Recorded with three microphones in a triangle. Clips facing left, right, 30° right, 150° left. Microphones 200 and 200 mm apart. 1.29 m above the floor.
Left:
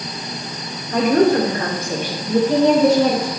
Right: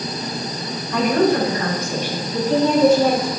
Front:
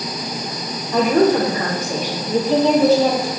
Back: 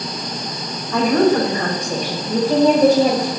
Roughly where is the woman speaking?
Ahead left.